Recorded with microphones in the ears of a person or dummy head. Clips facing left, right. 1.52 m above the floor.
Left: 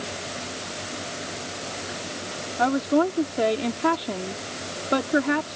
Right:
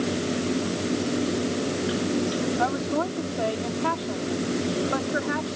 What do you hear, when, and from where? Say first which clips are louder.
0.0 s a fan: right 9 dB; 60° right (ahead or behind)
2.6 s a woman speaking: left 4 dB; 50° left (ahead or behind)